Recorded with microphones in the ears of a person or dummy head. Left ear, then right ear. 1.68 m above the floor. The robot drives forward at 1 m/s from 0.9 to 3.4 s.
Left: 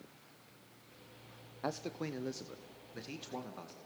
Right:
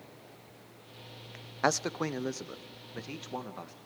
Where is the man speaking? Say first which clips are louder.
Right 10 dB; 65° right (ahead or behind), 0.5 m; by 3.8 s 15° right (ahead or behind), 2 m.